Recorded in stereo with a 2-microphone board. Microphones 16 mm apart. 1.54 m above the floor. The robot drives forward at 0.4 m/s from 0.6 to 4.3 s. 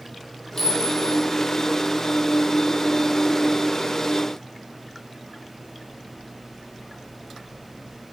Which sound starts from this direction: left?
A clink, at 0.6 s.